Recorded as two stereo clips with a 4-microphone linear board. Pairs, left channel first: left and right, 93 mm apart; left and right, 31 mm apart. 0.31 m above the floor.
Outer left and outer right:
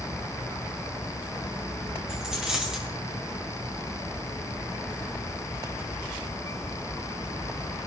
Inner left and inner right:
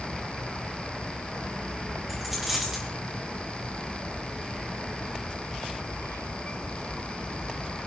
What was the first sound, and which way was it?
A dropped coin, 10° right (ahead or behind).